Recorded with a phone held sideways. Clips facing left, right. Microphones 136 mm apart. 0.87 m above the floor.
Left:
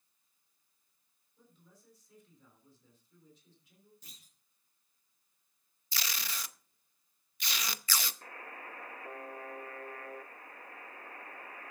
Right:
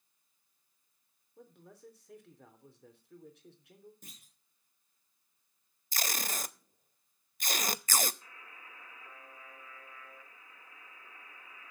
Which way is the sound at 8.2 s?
60° left (ahead or behind).